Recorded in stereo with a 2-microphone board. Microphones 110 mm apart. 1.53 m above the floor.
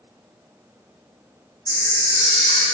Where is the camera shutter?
35° left (ahead or behind), 1.4 m.